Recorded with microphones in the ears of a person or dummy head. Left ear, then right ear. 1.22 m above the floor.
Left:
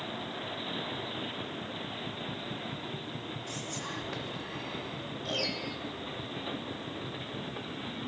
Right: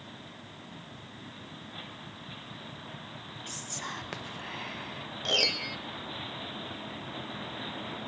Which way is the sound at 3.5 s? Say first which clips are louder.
Right 2 dB; 65° right (ahead or behind).